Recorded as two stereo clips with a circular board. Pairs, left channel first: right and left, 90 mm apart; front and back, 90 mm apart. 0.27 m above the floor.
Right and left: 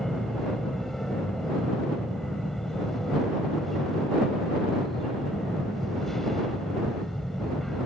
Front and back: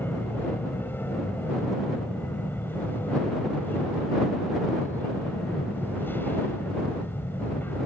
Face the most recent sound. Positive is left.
turn(degrees=-10)